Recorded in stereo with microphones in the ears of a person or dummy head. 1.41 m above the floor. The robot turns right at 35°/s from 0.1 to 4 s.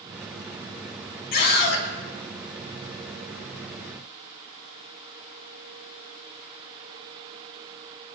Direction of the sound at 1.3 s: 55° left (ahead or behind).